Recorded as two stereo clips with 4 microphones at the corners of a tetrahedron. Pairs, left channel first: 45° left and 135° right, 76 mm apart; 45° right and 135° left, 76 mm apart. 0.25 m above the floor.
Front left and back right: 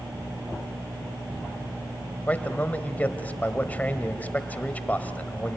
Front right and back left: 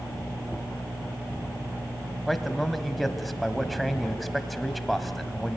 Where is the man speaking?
40° left, 1.2 m.